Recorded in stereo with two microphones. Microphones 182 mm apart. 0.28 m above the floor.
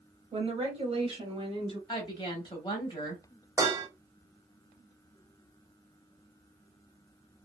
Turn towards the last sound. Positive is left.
turn(degrees=-20)  # may be behind; listen again after turning